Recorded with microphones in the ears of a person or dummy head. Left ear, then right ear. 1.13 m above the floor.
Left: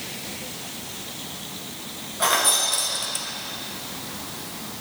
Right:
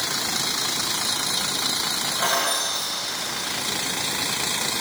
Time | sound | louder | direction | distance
2.2 | keys jangling | left 4 dB | 10° left (ahead or behind) | 0.7 m